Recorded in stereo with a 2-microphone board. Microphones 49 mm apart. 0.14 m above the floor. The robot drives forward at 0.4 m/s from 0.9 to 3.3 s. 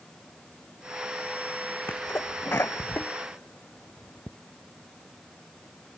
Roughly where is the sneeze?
Left.